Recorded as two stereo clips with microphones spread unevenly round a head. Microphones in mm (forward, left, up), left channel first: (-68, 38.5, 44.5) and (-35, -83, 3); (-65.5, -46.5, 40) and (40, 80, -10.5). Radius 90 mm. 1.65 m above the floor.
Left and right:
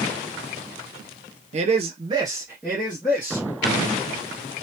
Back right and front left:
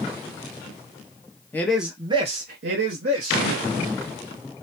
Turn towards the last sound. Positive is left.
turn(degrees=45)